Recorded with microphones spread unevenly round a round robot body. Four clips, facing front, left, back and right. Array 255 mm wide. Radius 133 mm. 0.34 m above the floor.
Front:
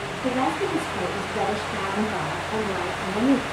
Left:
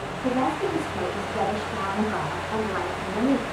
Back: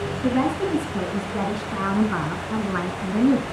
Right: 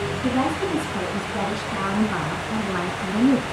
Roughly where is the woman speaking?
Behind.